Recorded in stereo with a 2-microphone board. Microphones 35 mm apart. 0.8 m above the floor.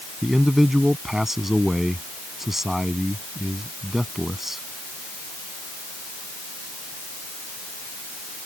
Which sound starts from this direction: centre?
A man speaking, at 0.2 s.